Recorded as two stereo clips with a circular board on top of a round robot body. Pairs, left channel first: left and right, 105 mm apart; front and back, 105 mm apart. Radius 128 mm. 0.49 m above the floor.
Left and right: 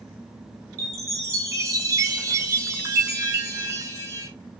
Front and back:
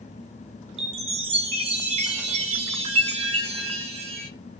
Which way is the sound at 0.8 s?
155° right.